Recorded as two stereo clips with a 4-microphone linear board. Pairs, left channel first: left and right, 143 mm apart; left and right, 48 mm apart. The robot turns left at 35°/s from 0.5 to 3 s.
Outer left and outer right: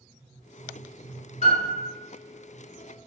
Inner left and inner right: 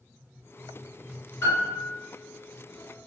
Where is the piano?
50° left (ahead or behind), 1.4 m; by 1.8 s 55° left (ahead or behind), 1.4 m.